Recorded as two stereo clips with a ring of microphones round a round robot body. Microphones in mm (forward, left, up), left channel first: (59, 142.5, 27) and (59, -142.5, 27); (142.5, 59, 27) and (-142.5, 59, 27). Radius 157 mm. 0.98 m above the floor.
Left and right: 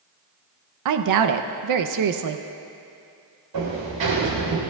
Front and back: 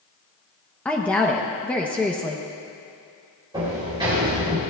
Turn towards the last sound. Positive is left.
turn(degrees=-105)